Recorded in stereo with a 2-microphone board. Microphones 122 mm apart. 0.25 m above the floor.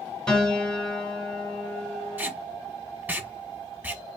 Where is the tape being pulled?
15° right (ahead or behind), 0.8 m.